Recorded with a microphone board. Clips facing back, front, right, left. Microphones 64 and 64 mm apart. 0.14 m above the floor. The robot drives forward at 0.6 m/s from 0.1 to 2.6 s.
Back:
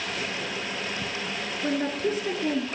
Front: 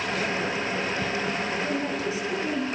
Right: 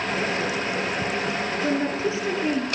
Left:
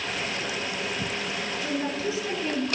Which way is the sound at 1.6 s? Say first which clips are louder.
Back 1 dB, right 4 dB; 145° right.